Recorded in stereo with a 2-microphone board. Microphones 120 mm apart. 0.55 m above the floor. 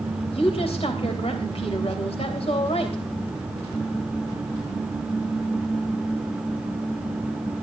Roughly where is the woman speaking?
Left.